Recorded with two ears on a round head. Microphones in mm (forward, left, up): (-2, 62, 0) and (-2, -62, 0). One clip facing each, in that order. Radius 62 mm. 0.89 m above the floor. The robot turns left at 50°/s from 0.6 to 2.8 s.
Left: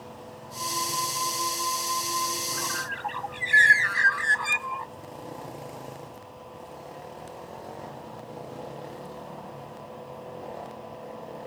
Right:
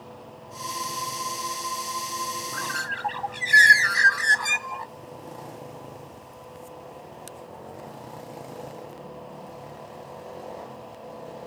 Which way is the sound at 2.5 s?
60° right (ahead or behind).